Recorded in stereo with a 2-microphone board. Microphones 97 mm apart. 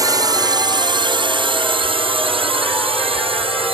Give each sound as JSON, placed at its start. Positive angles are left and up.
{"t": 0.0, "sound": "a drone", "side_deg": -40}